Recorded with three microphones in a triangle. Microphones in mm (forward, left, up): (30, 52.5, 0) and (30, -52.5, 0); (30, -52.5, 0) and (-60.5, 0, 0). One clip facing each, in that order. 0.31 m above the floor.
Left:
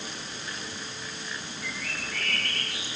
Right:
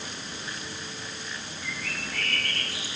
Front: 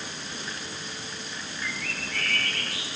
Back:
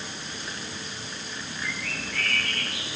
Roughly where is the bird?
Ahead right.